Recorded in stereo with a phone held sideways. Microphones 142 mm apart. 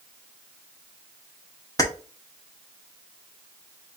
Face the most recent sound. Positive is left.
turn(degrees=25)  # may be behind; listen again after turning